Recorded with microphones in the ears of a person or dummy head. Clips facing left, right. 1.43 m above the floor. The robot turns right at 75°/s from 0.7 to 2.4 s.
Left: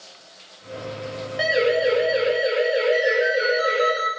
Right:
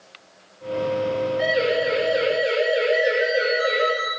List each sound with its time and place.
1.4 s a siren: 90° left, 8 m; by 3.9 s 5° right (ahead or behind), 7.5 m
2.9 s a ringtone: 45° left (ahead or behind), 7.5 m